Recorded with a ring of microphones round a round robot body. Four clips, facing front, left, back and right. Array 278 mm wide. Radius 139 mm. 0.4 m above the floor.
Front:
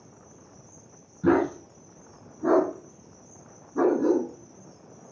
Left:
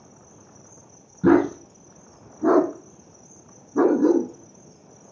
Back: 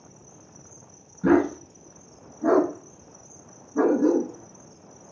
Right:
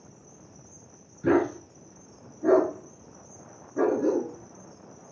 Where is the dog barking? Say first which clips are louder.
Left 6 dB, back 2 dB; 95° left, 1.8 m.